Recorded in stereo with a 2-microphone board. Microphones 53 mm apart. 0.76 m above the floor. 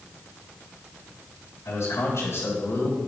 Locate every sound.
1.6 s a man speaking: 70° left (ahead or behind), 3 m; by 3.0 s 55° left (ahead or behind), 3 m